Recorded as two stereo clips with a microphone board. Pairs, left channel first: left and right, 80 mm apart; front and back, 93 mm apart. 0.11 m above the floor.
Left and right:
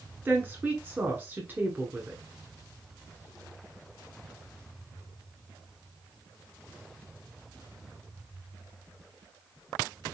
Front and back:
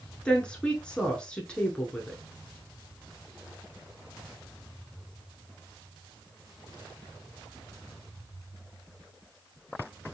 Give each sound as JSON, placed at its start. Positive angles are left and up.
{"t": 0.2, "sound": "a woman speaking", "azimuth_deg": -65, "distance_m": 1.2}